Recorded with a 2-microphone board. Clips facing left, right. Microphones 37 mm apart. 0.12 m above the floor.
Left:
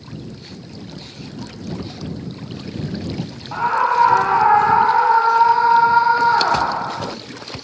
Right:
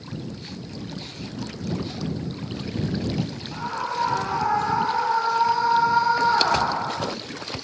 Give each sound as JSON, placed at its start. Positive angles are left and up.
{"t": 3.5, "sound": "a scream", "side_deg": 45}